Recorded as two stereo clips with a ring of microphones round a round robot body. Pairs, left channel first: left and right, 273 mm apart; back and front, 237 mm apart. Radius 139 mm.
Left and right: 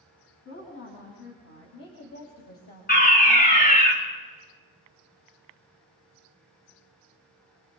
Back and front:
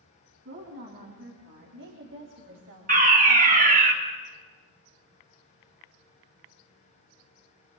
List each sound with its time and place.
0.5 s a woman speaking: 40° left, 5 m; by 3.8 s 20° left, 2.5 m
2.9 s a fire alarm: 40° left, 2.5 m